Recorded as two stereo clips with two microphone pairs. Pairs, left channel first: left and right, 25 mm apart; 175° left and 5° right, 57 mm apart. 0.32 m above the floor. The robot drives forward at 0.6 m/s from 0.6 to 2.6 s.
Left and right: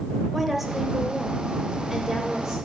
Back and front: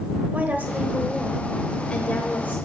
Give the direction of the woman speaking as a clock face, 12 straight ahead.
12 o'clock.